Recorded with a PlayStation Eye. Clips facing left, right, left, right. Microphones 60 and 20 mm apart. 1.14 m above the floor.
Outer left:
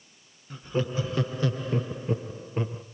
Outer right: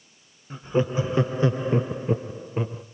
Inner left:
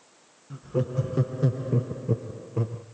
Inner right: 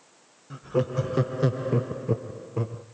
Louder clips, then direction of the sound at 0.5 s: Outer right 5 dB, inner right 2 dB; 20° right (ahead or behind).